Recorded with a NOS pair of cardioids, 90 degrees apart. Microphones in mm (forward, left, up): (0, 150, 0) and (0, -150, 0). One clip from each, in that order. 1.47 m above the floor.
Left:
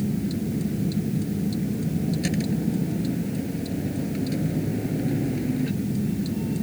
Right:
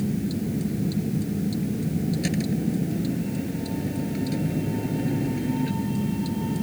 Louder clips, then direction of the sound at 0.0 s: Even; straight ahead.